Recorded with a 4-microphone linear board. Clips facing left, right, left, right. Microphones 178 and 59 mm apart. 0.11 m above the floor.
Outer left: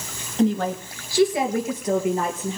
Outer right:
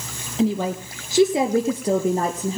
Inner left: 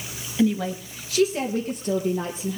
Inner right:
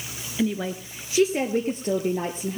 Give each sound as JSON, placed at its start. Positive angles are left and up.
{"t": 0.4, "sound": "a woman speaking", "side_deg": -5, "distance_m": 1.5}